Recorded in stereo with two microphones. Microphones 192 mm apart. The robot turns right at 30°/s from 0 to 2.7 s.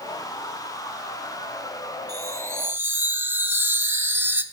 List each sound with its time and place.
2.1 s a chime: 20° right (ahead or behind), 0.7 m; by 4.4 s 10° right (ahead or behind), 0.7 m